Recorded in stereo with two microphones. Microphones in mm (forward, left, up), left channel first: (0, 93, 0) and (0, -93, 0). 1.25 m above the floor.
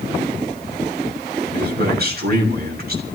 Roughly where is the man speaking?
Right.